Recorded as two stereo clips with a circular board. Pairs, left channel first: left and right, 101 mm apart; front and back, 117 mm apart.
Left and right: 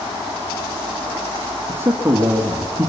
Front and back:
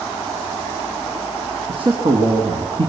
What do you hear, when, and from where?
1.7 s a man speaking: 150° right, 2 m